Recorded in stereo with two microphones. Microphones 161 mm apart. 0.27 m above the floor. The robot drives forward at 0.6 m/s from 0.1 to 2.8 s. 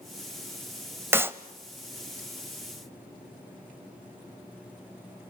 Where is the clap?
15° right (ahead or behind), 0.9 m.